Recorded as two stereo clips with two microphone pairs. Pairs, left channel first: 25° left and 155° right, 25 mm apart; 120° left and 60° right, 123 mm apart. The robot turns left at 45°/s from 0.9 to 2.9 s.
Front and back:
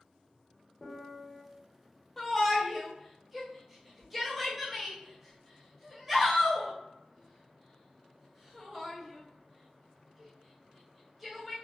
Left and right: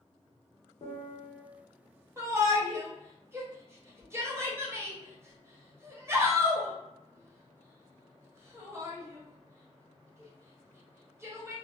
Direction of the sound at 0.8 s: 90° left.